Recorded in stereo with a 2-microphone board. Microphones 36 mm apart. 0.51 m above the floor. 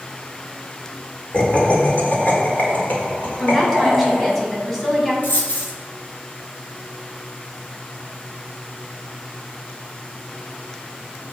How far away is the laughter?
About 1.8 m.